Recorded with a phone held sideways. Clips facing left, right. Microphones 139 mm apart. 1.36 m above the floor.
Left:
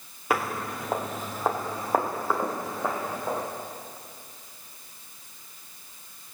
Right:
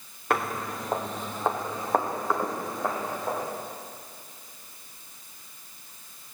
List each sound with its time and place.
0.3 s footsteps: 5° left (ahead or behind), 1.5 m